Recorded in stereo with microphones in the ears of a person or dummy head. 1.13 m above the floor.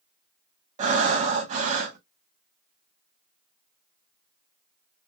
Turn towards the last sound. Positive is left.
turn(degrees=-40)  # may be behind; listen again after turning